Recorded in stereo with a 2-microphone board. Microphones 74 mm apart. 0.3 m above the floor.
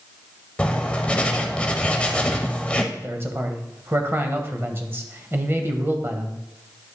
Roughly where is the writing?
Centre.